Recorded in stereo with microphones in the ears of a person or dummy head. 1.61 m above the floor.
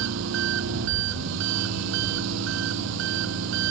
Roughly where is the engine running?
Right.